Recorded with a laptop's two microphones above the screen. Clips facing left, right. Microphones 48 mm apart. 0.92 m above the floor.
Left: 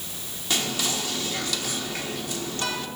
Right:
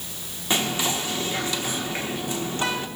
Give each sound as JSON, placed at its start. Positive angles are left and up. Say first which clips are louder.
{"t": 0.5, "sound": "whispering", "louder": "right 3 dB", "side_deg": -25, "distance_m": 0.7}